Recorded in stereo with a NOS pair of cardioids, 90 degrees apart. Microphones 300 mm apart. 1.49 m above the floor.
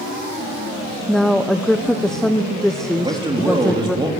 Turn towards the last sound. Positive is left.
turn(degrees=-15)